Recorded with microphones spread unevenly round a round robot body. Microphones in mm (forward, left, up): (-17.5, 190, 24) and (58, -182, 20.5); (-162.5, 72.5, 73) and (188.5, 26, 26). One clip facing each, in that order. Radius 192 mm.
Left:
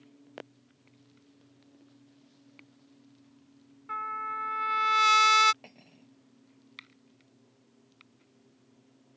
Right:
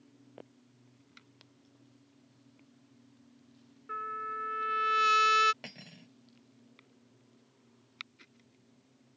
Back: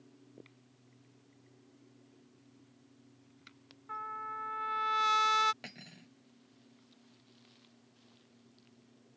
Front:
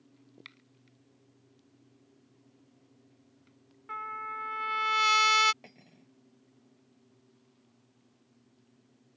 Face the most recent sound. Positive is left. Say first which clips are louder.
# right 3 dB, back 3 dB
turn(degrees=-125)